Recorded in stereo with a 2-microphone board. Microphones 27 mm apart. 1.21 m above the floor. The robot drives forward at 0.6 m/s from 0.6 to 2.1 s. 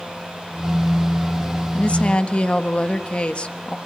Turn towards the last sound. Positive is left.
turn(degrees=45)  # may be behind; listen again after turning